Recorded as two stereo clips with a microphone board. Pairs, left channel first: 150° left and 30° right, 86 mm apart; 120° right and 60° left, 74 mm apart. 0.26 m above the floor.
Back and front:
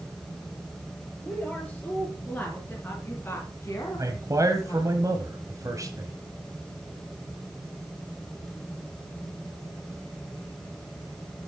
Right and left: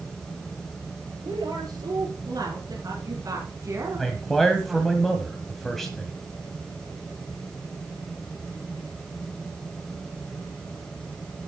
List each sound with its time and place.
1.2 s a woman speaking: 75° left, 5 m; by 5.0 s 150° left, 2.0 m
4.0 s a man speaking: 35° right, 1.4 m